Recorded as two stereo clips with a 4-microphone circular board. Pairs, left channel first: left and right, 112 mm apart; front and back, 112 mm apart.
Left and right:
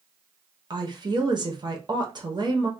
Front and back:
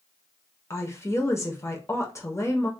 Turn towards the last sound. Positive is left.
turn(degrees=-55)